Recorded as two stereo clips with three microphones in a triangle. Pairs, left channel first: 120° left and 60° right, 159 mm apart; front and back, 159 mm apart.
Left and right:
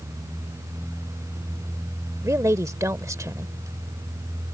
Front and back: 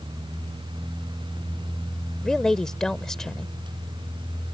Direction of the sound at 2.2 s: 80° right.